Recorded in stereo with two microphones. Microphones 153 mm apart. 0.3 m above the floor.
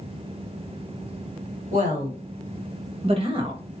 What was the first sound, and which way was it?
A woman speaking, 50° right (ahead or behind).